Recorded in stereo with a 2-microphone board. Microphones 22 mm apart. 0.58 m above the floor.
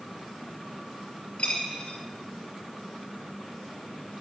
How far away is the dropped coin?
About 6 m.